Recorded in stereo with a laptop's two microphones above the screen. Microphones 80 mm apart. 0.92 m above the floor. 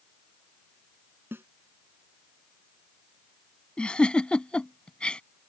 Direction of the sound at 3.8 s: 10° left (ahead or behind).